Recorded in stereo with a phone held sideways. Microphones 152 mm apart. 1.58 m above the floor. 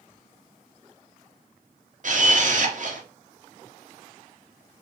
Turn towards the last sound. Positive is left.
turn(degrees=-60)  # may be behind; listen again after turning